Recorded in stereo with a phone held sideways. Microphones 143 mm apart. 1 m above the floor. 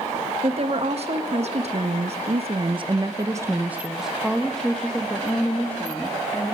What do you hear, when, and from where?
0.4 s a woman speaking: 45° right (ahead or behind), 1.5 m; by 6.5 s 15° left (ahead or behind), 2 m